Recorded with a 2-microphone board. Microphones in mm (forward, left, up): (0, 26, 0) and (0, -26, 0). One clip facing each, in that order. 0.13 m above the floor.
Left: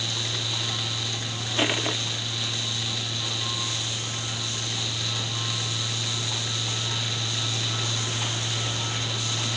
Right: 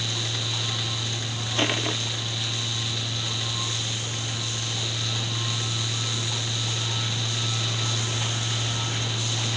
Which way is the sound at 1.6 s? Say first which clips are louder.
Even; 5° left (ahead or behind).